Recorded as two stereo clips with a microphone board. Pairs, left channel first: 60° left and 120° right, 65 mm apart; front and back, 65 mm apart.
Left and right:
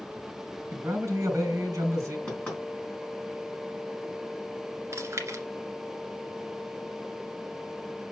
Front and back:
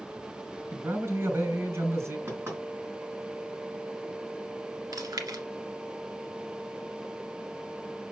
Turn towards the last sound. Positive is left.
turn(degrees=-165)